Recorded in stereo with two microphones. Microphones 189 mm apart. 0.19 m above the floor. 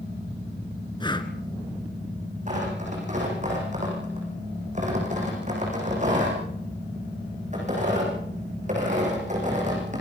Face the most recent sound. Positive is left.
turn(degrees=-40)  # may be behind; listen again after turning